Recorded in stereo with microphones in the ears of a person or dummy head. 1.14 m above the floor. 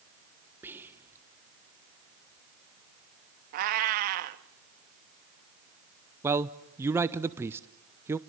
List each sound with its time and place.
0.6 s whispering: 10° right (ahead or behind), 1.0 m
3.5 s a cat meowing: 40° right (ahead or behind), 0.7 m
6.2 s a man speaking: 20° right (ahead or behind), 0.7 m